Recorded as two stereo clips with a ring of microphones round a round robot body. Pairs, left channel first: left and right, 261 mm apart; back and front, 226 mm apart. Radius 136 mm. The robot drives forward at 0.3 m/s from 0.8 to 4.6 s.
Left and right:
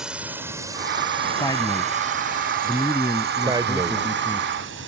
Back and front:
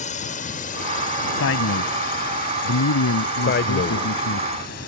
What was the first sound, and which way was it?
A drone, 175° right.